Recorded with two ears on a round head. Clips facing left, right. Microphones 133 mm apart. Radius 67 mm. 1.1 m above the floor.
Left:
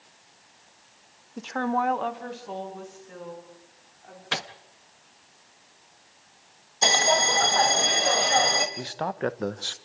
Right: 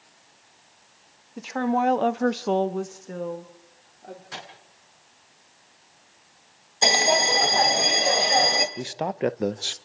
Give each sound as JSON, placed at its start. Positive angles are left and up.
{"t": 1.4, "sound": "a woman speaking", "side_deg": 0, "distance_m": 1.5}
{"t": 4.3, "sound": "a microwave", "side_deg": 70, "distance_m": 1.3}
{"t": 6.8, "sound": "a bell", "side_deg": -20, "distance_m": 1.4}
{"t": 8.8, "sound": "a man speaking", "side_deg": -20, "distance_m": 0.6}